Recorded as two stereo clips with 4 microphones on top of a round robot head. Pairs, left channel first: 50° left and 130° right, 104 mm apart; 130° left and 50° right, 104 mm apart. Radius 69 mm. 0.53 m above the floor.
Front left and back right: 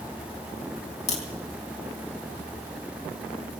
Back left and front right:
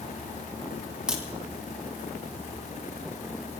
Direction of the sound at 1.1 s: 30° left.